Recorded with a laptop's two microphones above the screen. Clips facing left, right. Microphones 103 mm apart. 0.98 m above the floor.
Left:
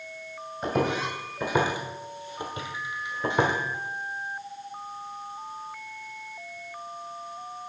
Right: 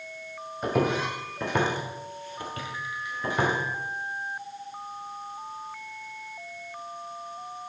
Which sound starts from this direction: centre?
Footsteps, at 0.6 s.